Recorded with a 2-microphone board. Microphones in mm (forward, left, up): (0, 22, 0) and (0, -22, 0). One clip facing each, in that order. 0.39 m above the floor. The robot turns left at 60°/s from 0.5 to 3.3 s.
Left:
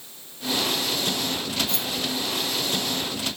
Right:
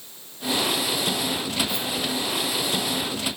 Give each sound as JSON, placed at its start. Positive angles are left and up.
{"t": 1.7, "sound": "keys jangling", "side_deg": 80, "distance_m": 4.5}